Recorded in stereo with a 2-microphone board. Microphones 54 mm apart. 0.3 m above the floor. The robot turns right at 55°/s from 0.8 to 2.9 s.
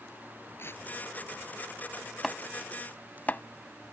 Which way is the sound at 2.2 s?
5° right (ahead or behind).